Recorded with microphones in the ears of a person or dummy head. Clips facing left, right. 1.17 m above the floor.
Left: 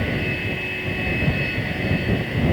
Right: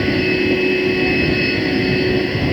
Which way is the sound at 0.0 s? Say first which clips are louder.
Right 10 dB; 55° right (ahead or behind).